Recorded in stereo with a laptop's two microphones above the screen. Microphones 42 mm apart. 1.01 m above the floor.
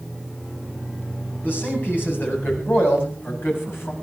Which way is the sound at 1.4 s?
50° left (ahead or behind).